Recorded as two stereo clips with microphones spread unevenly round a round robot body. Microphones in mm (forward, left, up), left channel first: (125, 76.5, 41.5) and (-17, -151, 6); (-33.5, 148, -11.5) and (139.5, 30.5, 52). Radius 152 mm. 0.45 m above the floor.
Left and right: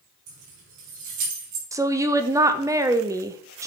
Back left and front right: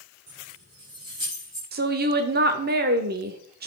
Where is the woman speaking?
70° right, 0.8 m.